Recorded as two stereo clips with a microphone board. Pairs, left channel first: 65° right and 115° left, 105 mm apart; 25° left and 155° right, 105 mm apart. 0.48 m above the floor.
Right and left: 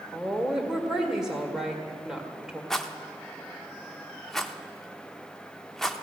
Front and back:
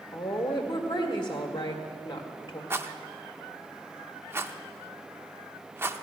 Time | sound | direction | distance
0.1 | a woman speaking | 30° left | 1.9 m
2.7 | a rattle | 150° right | 0.6 m